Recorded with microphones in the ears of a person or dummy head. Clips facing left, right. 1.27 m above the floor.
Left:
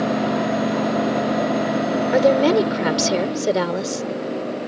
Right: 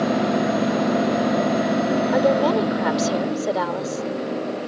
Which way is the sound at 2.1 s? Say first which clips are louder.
Left 5 dB; 35° left (ahead or behind).